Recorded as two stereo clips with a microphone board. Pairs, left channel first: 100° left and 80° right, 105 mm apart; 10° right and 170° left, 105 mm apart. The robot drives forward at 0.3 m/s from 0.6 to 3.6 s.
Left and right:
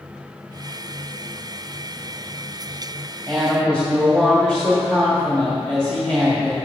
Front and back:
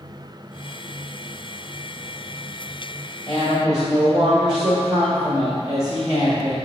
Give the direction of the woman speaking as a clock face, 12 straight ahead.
6 o'clock.